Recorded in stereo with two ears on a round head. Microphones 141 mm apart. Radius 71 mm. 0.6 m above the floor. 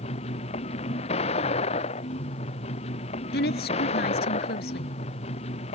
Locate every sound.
0.0 s a vehicle: 40° left (ahead or behind)
3.3 s a woman speaking: 70° left (ahead or behind)